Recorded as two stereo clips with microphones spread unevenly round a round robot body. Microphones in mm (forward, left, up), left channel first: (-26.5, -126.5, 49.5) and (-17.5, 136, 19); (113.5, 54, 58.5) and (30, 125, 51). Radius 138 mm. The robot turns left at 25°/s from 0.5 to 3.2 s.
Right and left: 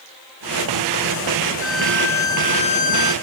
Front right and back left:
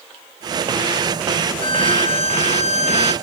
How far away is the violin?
About 2 m.